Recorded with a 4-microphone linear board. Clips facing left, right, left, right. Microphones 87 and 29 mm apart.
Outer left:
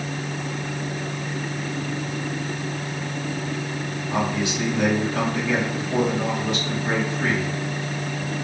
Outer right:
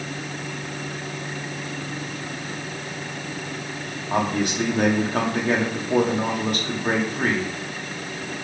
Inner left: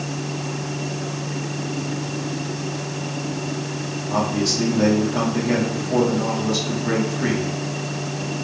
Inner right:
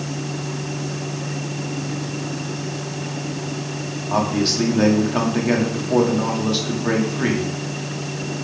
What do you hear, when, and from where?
4.1 s a man speaking: 50° right (ahead or behind), 1.6 m